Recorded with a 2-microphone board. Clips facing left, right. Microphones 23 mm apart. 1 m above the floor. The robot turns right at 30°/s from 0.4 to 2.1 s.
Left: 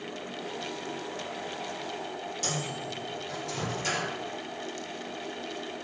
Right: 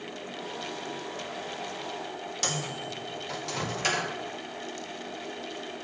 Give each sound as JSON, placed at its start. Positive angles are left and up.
{"t": 2.4, "sound": "a microwave", "side_deg": -50, "distance_m": 0.7}